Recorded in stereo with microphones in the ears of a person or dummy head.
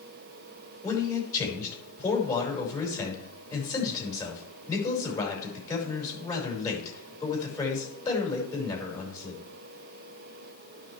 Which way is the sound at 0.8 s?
15° left (ahead or behind).